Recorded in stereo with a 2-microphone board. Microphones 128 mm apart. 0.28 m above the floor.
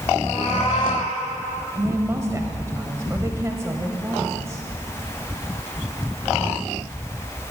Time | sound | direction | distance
0.2 | a cat meowing | 45° left (ahead or behind) | 5 m
1.8 | a woman speaking | 25° right (ahead or behind) | 1.1 m